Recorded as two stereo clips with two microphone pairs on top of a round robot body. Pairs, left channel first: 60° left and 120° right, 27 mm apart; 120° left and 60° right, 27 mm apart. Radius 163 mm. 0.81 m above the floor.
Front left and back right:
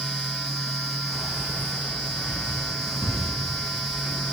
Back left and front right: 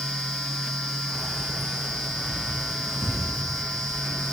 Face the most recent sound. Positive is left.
turn(degrees=35)